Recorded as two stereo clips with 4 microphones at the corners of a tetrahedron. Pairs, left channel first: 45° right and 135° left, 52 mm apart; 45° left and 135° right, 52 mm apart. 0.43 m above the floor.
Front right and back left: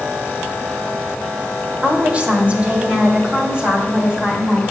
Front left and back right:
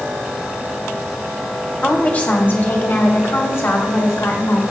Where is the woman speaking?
95° left, 1.4 m; by 4.6 s 65° left, 3 m.